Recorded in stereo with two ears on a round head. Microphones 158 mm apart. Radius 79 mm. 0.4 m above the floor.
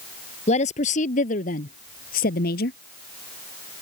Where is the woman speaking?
40° left (ahead or behind); by 2.8 s 60° left (ahead or behind).